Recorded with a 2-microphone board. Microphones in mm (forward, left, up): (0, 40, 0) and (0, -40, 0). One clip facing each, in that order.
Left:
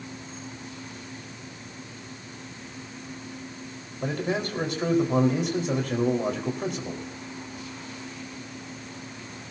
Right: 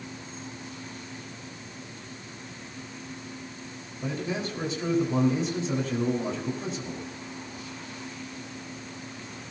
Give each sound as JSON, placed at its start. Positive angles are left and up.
{"t": 4.0, "sound": "a man speaking", "side_deg": 60, "distance_m": 4.5}